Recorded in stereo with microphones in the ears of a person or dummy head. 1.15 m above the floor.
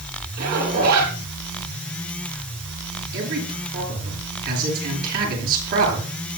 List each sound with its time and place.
0.4 s a zipper: 55° right (ahead or behind), 8.5 m
3.1 s a man speaking: 50° right (ahead or behind), 9.5 m